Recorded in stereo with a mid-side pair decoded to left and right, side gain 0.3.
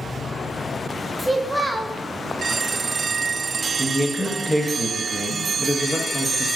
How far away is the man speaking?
About 0.9 m.